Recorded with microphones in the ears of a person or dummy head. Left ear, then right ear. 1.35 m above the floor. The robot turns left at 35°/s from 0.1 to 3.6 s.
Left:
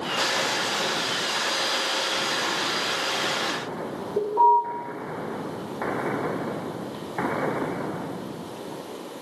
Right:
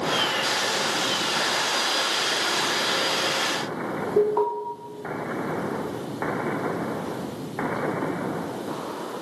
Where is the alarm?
70° right (ahead or behind), 5.5 m.